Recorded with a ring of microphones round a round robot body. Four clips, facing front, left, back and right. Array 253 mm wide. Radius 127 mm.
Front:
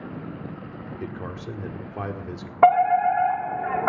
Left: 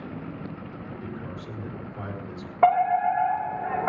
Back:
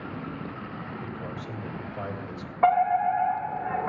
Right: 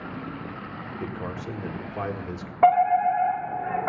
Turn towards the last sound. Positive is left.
turn(degrees=0)